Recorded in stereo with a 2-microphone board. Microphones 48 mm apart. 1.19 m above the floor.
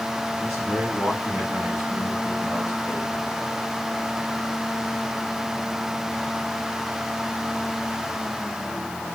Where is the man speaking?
30° right (ahead or behind), 8 m; by 3.4 s 50° right (ahead or behind), 4.5 m.